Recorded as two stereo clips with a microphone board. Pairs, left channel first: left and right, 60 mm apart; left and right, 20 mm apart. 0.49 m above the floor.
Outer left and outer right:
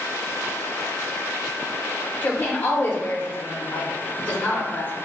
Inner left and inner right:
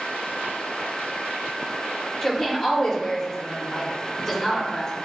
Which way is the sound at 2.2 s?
30° left (ahead or behind).